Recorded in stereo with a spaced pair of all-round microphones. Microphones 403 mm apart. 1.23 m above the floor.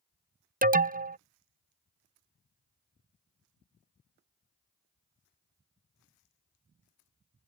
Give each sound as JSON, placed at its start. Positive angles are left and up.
{"t": 0.6, "sound": "an alarm", "side_deg": -20}